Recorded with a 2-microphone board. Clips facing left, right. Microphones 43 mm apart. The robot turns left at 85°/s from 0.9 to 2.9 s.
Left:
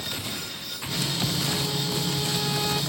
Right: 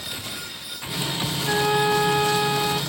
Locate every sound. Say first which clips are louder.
1.4 s a flute: right 8 dB; 50° right; by 2.8 s 165° right